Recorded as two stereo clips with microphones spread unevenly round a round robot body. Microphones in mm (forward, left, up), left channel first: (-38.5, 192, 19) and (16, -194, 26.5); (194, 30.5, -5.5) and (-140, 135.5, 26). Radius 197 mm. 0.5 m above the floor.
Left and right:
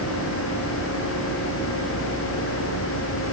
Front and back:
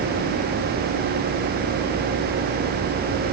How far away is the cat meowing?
I don't hear a cat meowing.